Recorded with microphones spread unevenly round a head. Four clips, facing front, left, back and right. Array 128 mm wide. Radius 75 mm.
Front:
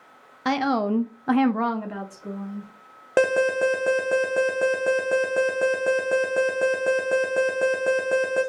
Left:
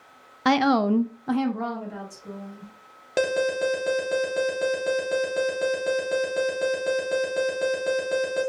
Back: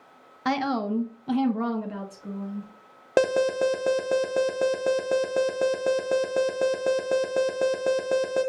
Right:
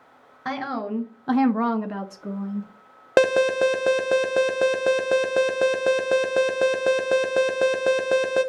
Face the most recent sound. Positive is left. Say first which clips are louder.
# right 5 dB, front 2 dB
turn(degrees=-125)